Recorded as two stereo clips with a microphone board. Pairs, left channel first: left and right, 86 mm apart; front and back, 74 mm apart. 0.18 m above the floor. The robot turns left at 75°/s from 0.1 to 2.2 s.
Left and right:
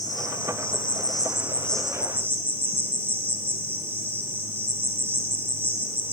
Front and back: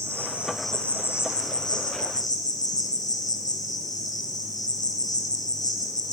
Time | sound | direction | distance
0.0 | an insect | 130° left | 4.5 m